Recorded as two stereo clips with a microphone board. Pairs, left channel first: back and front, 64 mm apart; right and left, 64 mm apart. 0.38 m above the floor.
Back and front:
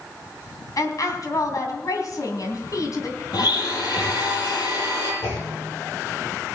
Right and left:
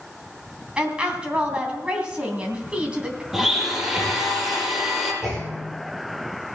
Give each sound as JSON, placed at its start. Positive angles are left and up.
{"t": 0.8, "sound": "a woman speaking", "azimuth_deg": 160, "distance_m": 3.0}
{"t": 3.3, "sound": "a blender", "azimuth_deg": 170, "distance_m": 5.5}
{"t": 5.2, "sound": "a clunk", "azimuth_deg": 175, "distance_m": 5.5}